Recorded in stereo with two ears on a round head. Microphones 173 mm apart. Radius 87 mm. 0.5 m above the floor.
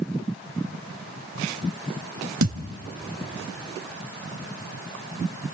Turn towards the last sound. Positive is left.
turn(degrees=-85)